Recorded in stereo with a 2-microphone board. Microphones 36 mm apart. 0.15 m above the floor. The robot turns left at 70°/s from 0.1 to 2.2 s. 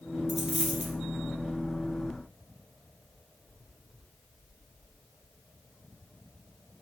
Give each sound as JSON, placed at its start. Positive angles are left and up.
{"t": 0.3, "sound": "a dropped coin", "azimuth_deg": 0, "distance_m": 1.0}